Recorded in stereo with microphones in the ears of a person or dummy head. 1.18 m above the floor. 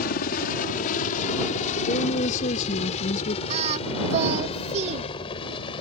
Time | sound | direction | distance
0.0 | a helicopter | 45° left (ahead or behind) | ?
1.9 | a woman speaking | 40° left (ahead or behind) | ?
3.5 | singing | 35° right (ahead or behind) | ?